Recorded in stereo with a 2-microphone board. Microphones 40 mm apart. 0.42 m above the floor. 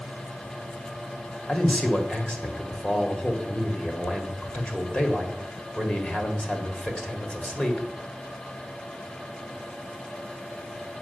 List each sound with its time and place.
1.5 s a man speaking: 30° left (ahead or behind), 1.9 m